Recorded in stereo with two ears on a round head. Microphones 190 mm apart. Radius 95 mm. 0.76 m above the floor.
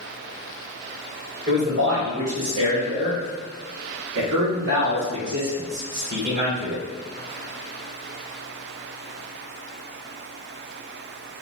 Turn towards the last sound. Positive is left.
turn(degrees=-45)  # may be behind; listen again after turning